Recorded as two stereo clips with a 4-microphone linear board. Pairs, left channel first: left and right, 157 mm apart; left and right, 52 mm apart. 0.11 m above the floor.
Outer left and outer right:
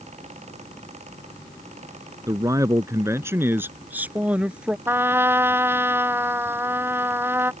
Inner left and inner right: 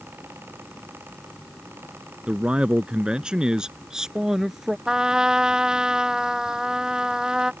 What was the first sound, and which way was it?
A man speaking, 20° right (ahead or behind).